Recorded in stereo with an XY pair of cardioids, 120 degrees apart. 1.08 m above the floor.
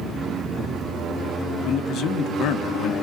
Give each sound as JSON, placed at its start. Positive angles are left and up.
{"t": 1.6, "sound": "a man speaking", "azimuth_deg": 65, "distance_m": 0.9}